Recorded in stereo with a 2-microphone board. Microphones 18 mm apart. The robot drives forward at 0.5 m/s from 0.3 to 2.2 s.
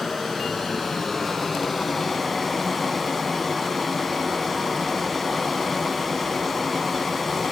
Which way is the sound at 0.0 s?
Centre (ahead or behind).